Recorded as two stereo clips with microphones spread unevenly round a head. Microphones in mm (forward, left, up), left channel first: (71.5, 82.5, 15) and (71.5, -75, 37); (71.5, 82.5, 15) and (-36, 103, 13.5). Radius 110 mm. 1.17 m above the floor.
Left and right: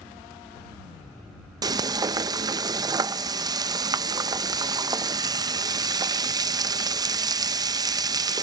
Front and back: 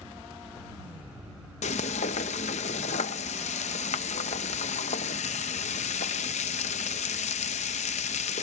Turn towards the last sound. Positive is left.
turn(degrees=-30)